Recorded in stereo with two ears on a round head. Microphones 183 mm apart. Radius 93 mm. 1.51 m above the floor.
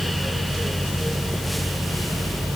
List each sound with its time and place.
Only background noise.